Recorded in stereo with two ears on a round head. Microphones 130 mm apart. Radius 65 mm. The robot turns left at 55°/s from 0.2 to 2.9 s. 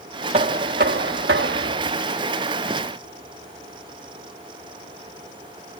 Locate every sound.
0.3 s knocking: 45° right; by 2.0 s 135° right